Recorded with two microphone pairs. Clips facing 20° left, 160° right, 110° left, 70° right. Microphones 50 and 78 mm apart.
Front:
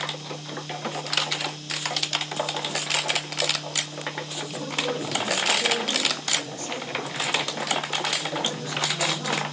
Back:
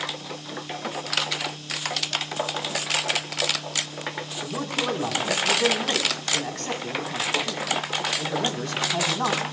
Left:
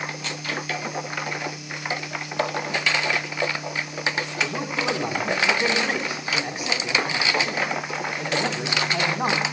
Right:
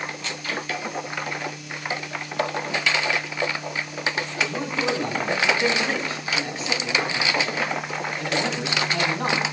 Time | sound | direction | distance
4.4 | a man speaking | straight behind | 5 m